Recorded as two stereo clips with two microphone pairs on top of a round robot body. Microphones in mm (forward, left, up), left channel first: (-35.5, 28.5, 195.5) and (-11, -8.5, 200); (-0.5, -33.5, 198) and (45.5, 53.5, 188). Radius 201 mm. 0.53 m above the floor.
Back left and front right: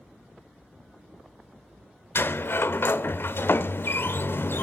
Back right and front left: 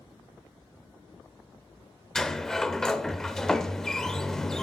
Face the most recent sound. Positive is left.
turn(degrees=155)